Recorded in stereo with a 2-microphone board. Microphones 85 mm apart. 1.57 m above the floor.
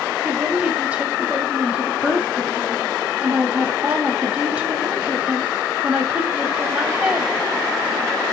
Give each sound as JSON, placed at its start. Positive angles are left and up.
{"t": 0.2, "sound": "a woman speaking", "side_deg": -20, "distance_m": 4.0}